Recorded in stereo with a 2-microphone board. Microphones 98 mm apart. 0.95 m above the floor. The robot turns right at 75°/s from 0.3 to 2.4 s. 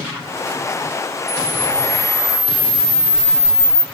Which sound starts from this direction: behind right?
A camera shutter, at 1.3 s.